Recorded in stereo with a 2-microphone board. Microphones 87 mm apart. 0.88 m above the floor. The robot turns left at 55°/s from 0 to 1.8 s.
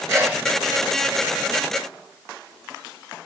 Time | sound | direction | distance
0.1 | a sneeze | 30° right (ahead or behind) | 3.5 m